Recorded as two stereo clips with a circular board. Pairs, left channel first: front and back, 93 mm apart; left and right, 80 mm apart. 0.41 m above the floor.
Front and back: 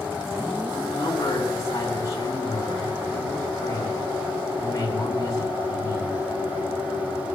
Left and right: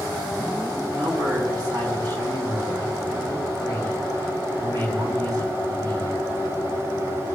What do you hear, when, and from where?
0.9 s a man speaking: 55° right, 4 m